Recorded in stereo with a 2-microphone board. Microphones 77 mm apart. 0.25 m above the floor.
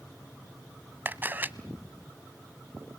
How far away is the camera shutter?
About 0.6 m.